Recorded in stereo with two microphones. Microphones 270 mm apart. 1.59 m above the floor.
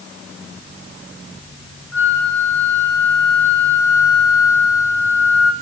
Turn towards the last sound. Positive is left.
turn(degrees=10)  # may be behind; listen again after turning